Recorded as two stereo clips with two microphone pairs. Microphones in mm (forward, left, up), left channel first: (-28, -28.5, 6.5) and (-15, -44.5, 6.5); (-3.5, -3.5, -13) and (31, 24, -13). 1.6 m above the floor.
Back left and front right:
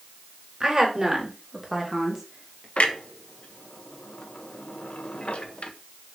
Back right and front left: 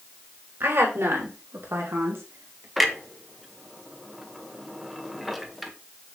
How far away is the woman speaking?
About 3.5 m.